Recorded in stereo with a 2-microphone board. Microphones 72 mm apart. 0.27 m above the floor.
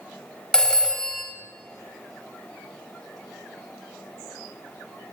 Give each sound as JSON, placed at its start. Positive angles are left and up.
{"t": 0.5, "sound": "a phone ringing", "side_deg": 10, "distance_m": 0.7}